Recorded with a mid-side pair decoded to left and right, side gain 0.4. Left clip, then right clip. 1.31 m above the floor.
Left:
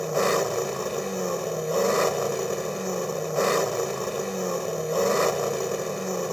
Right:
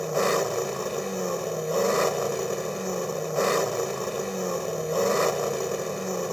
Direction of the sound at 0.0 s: 5° left.